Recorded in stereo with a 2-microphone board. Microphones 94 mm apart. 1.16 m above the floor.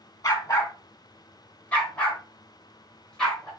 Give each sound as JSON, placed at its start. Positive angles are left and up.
{"t": 0.2, "sound": "a dog barking", "side_deg": 30, "distance_m": 1.8}